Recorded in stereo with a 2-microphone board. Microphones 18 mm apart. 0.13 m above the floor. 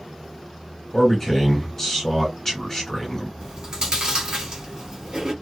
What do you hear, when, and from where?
0.9 s a man speaking: 15° left (ahead or behind), 1.6 m
3.4 s chewing: 45° right (ahead or behind), 1.9 m